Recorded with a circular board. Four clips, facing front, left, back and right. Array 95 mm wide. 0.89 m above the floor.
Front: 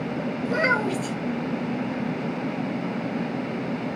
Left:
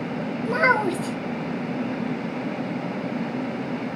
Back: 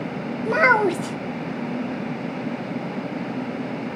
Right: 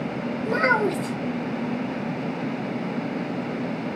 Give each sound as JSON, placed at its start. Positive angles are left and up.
{"t": 0.5, "sound": "a child speaking", "azimuth_deg": 175, "distance_m": 0.9}